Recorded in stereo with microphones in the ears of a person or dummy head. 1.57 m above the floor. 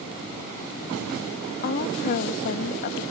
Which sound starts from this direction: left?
A woman speaking, at 1.6 s.